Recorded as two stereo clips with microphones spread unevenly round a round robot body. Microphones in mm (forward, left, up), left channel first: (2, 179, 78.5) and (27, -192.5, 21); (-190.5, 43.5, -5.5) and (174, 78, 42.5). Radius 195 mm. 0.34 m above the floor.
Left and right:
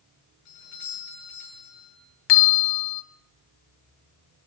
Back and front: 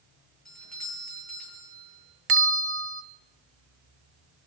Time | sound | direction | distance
0.5 | a doorbell | 95° left | 9.5 m
2.3 | a bell | 65° left | 0.7 m